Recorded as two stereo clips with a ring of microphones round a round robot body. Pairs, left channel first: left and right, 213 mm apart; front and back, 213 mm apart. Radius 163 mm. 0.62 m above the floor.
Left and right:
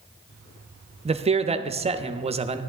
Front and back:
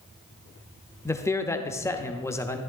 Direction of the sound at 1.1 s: 65° right.